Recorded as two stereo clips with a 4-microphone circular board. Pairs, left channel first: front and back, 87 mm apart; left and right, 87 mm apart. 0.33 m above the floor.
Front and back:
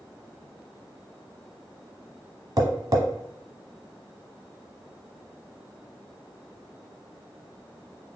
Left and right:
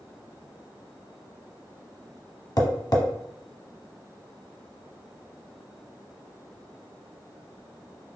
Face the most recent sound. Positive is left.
turn(degrees=135)